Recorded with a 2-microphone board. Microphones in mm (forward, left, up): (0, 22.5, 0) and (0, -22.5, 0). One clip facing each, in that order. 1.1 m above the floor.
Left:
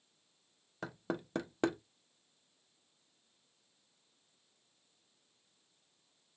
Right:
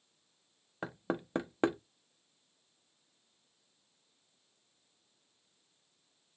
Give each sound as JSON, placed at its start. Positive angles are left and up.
{"t": 0.8, "sound": "knocking", "side_deg": -20, "distance_m": 0.5}